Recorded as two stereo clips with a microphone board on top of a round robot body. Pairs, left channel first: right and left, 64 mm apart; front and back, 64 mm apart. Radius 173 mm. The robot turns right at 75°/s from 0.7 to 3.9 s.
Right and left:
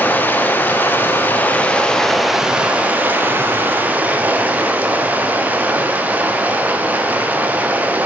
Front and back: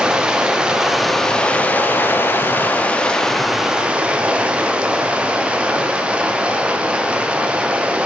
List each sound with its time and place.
0.0 s running water: 115° right, 0.8 m; by 8.1 s 125° left, 0.8 m